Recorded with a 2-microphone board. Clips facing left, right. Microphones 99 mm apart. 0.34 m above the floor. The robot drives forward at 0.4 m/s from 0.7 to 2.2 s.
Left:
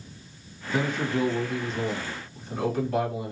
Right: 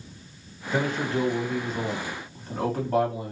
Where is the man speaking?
55° right (ahead or behind), 1.9 m; by 3.3 s 50° right (ahead or behind), 2 m.